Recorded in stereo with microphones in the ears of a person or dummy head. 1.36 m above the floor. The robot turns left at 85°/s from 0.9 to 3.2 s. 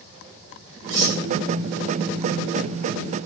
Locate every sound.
0.9 s cutlery clinking: 50° right (ahead or behind), 1.2 m; by 1.2 s 30° right (ahead or behind), 1.2 m